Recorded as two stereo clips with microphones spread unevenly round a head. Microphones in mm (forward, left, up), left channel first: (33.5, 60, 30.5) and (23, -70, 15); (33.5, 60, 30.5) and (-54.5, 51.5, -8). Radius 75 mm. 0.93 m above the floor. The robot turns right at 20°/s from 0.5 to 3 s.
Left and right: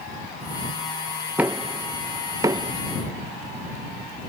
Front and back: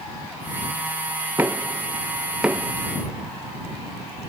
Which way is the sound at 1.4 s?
160° right.